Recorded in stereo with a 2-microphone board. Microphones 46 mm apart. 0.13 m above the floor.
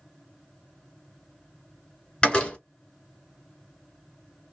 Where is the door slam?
20° left (ahead or behind), 1.4 m.